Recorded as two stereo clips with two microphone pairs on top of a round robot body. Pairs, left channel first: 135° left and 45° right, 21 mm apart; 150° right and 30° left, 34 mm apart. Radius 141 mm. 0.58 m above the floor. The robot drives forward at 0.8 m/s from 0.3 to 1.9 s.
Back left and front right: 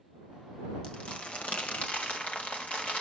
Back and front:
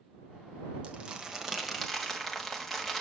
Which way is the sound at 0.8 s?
90° left.